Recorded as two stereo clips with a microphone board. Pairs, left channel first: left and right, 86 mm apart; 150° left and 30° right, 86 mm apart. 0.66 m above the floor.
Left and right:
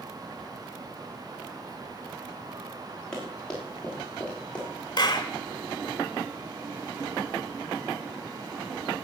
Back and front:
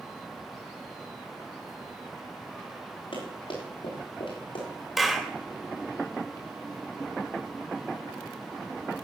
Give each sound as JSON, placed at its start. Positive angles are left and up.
{"t": 3.1, "sound": "running footsteps", "azimuth_deg": 170, "distance_m": 8.0}
{"t": 5.0, "sound": "a clap", "azimuth_deg": 55, "distance_m": 1.7}